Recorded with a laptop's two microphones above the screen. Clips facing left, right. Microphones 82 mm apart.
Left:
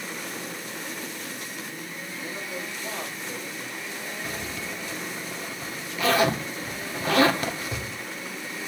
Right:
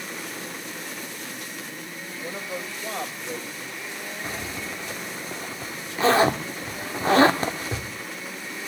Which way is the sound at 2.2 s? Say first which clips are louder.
Right 3 dB; 55° right (ahead or behind).